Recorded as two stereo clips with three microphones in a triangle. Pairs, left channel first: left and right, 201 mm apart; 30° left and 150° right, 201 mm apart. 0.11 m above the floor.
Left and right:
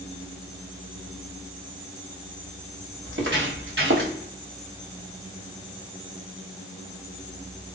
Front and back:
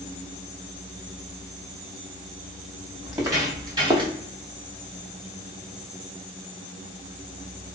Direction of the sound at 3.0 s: 75° right.